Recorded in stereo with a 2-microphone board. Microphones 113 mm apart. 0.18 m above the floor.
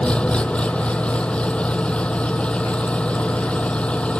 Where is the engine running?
10° left (ahead or behind).